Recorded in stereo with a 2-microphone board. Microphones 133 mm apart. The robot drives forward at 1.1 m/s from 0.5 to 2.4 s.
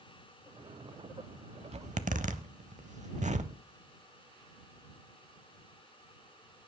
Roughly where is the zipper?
Right.